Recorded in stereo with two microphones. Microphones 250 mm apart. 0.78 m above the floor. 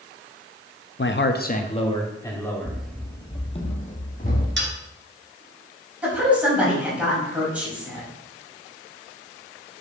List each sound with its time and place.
1.0 s a man speaking: 50° left (ahead or behind), 0.7 m; by 2.8 s 5° left (ahead or behind), 1.8 m
2.6 s running footsteps: 10° right (ahead or behind), 0.8 m; by 4.5 s 35° left (ahead or behind), 2.5 m
4.6 s a dropped coin: 50° right (ahead or behind), 1.8 m
6.0 s a woman speaking: 5° right (ahead or behind), 4 m